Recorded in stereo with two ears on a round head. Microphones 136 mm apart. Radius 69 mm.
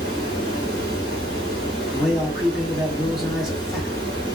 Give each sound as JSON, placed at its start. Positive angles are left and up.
{"t": 0.0, "sound": "running water", "side_deg": -35, "distance_m": 1.9}
{"t": 1.9, "sound": "a man speaking", "side_deg": 0, "distance_m": 0.7}